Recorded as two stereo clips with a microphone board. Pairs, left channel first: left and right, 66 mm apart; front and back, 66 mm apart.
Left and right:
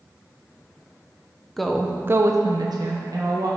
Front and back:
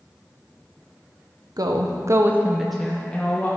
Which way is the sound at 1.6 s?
175° left.